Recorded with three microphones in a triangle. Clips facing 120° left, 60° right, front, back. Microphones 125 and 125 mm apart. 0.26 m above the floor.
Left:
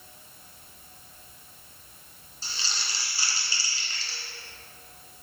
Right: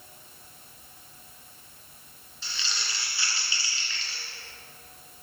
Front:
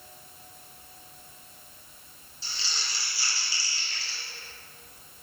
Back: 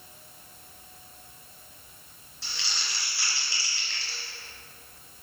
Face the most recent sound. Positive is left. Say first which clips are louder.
# even, back 1 dB
turn(degrees=170)